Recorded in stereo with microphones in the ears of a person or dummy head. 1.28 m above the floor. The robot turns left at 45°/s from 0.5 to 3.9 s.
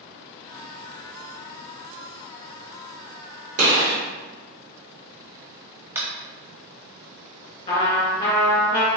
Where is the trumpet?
20° left (ahead or behind), 1.5 m.